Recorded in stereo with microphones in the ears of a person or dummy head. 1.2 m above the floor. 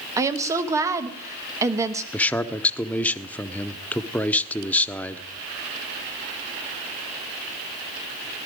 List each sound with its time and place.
0.2 s a woman speaking: 15° right (ahead or behind), 1.0 m
2.1 s a man speaking: 10° left (ahead or behind), 0.7 m